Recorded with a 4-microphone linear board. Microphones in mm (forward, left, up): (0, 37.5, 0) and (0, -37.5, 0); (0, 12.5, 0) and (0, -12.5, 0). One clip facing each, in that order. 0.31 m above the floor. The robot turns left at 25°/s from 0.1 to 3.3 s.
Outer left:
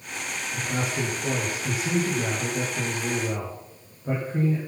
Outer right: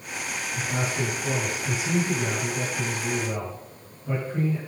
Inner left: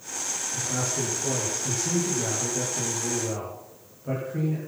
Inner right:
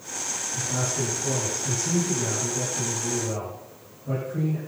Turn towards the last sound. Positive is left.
turn(degrees=55)